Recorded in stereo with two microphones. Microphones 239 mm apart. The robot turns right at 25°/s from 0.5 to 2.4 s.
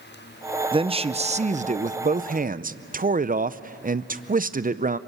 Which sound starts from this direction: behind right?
A man speaking, at 0.7 s.